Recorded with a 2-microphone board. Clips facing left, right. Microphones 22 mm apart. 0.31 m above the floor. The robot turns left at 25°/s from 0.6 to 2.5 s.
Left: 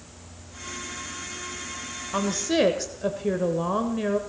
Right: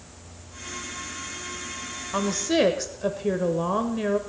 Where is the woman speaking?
Centre (ahead or behind), 1.1 m; by 4.2 s 5° right (ahead or behind), 1.1 m.